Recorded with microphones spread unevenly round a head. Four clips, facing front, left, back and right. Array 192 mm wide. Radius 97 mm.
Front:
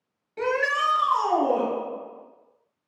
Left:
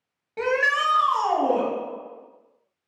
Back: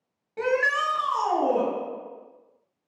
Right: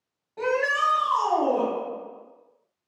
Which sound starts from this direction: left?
A shout, at 0.4 s.